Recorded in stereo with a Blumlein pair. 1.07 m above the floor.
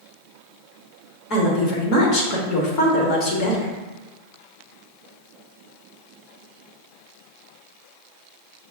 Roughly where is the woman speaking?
Ahead left.